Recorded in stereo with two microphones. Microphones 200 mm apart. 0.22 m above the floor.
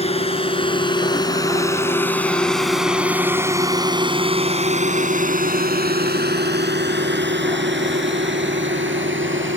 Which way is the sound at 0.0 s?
30° left (ahead or behind).